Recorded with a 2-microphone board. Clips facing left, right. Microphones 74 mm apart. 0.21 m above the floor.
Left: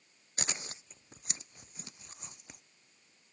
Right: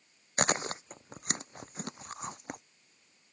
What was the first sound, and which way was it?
Chewing, 55° right (ahead or behind).